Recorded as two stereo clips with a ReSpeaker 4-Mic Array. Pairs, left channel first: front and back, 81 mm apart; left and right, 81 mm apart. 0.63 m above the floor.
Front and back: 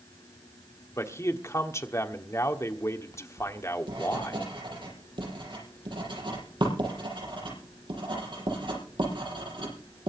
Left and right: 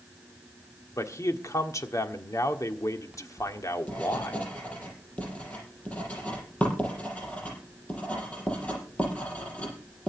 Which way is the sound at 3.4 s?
165° left.